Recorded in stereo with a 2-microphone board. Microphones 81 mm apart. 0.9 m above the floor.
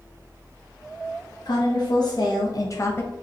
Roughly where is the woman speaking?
Left.